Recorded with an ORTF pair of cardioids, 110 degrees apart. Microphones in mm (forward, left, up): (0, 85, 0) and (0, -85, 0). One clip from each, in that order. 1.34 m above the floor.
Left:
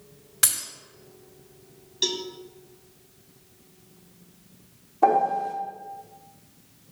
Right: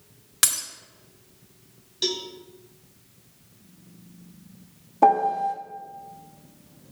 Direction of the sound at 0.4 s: 45° right.